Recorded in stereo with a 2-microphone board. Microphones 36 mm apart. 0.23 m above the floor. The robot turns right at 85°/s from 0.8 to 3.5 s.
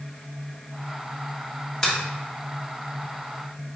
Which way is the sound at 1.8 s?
20° left (ahead or behind).